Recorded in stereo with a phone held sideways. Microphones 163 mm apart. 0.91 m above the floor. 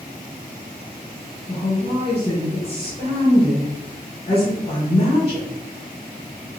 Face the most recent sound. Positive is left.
turn(degrees=40)  # may be behind; listen again after turning